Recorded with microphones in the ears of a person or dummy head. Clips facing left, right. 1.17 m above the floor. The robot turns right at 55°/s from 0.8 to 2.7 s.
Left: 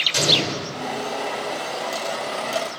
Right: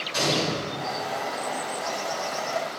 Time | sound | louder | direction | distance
0.1 | an explosion | left 2 dB | 35° left (ahead or behind) | 1.4 m